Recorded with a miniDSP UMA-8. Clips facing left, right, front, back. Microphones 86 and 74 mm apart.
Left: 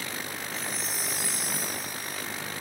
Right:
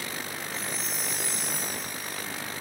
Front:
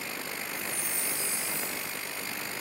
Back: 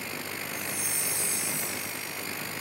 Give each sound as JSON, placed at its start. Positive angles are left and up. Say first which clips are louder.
{"t": 0.5, "sound": "a chime", "louder": "even, back 1 dB", "azimuth_deg": 180}